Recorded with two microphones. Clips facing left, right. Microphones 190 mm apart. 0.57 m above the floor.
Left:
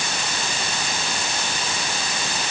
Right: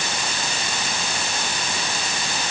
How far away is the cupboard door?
No cupboard door in this recording.